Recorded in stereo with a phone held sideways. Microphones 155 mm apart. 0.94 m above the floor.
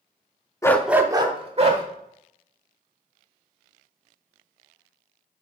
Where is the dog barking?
20° left (ahead or behind), 0.5 m; by 1.8 s 45° right (ahead or behind), 1.3 m.